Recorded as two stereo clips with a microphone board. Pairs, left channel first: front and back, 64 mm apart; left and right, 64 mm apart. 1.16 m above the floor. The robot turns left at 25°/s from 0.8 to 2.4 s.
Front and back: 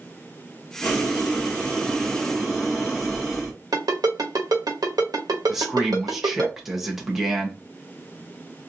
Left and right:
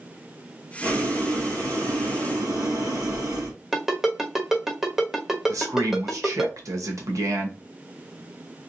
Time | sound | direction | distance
0.8 | boiling | 50° right | 1.4 m
3.7 | a ringtone | 175° right | 1.0 m
5.5 | a man speaking | 100° right | 1.0 m